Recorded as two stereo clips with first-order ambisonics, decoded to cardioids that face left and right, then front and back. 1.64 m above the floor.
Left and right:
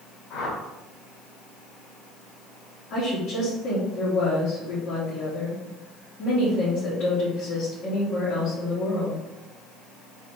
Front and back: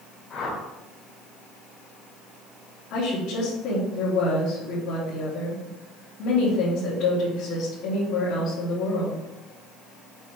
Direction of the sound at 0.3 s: 45° left.